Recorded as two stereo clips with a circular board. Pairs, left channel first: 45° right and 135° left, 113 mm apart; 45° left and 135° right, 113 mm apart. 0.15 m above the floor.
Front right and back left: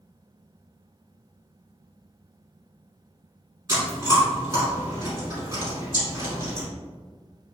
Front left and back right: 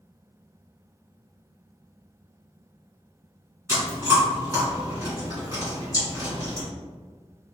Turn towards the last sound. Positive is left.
turn(degrees=175)